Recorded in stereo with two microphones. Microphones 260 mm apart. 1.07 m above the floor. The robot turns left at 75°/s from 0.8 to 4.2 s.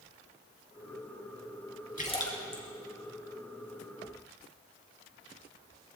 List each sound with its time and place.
2.0 s a splash: 30° left (ahead or behind), 3 m; by 2.6 s 15° right (ahead or behind), 3 m